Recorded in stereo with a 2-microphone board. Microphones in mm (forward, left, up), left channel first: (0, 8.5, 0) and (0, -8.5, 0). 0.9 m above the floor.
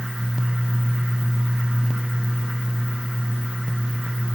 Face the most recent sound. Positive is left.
No sound to turn to.